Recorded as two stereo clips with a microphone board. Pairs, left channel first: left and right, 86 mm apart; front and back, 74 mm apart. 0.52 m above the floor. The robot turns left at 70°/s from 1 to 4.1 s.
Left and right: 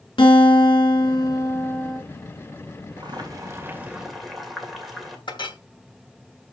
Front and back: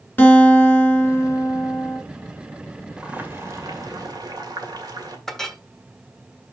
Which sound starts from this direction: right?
Boiling, at 3.0 s.